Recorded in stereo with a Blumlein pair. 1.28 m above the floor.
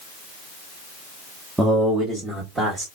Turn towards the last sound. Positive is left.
turn(degrees=-15)